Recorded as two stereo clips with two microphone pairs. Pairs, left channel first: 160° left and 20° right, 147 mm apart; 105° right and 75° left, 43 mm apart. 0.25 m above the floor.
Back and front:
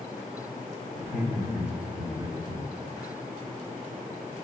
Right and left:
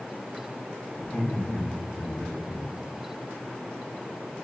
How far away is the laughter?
About 1.0 m.